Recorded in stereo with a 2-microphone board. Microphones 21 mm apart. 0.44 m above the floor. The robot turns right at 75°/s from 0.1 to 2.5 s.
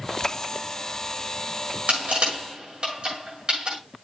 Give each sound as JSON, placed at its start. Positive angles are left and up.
{"t": 1.9, "sound": "crushing", "side_deg": -75, "distance_m": 7.0}